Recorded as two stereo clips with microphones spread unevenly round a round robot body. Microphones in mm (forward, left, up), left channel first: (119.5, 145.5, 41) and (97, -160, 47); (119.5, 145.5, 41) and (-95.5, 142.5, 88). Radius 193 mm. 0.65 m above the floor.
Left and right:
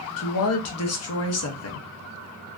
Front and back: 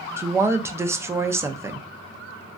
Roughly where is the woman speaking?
Left.